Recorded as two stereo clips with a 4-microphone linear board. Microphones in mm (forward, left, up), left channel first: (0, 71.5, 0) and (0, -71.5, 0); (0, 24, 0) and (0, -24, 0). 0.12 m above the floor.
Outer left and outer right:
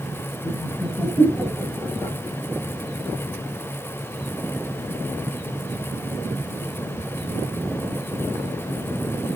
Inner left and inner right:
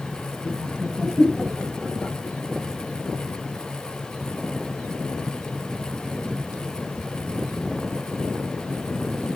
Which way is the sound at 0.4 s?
10° right (ahead or behind).